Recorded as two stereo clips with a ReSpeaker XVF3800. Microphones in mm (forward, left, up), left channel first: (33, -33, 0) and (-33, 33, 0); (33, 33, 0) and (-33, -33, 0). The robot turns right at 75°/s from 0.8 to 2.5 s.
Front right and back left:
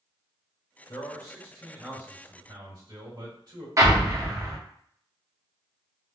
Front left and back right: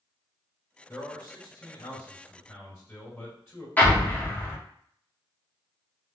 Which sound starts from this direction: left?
An explosion, at 3.8 s.